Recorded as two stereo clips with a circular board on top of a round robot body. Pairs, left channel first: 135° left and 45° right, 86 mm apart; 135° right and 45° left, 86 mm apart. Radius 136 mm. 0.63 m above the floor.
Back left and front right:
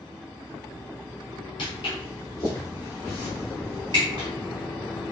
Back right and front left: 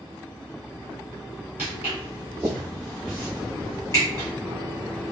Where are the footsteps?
115° left, 0.9 m; by 4.3 s 80° right, 0.9 m.